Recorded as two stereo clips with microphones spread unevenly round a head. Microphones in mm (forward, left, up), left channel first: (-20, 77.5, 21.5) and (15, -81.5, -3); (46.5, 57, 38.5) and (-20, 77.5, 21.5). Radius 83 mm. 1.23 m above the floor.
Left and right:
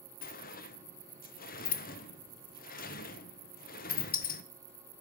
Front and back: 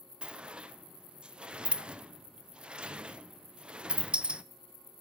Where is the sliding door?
110° left, 0.6 m.